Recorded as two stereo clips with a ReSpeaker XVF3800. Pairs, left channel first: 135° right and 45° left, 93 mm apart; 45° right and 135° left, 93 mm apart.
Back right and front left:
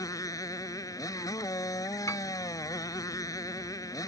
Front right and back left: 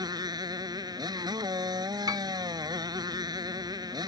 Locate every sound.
0.0 s a motorcycle: 175° left
2.1 s a piano: 170° left